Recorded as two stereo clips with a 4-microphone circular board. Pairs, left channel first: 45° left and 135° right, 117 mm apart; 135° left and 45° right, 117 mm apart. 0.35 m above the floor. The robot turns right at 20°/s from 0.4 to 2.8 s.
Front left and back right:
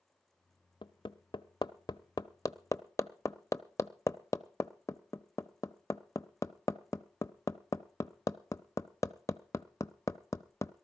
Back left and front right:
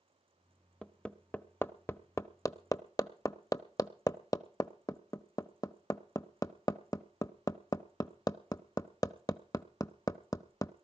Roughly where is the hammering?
Ahead left.